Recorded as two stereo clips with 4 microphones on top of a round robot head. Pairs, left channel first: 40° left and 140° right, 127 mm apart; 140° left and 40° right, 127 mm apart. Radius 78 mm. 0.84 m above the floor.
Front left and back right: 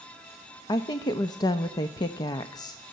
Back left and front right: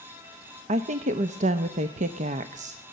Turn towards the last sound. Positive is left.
turn(degrees=-20)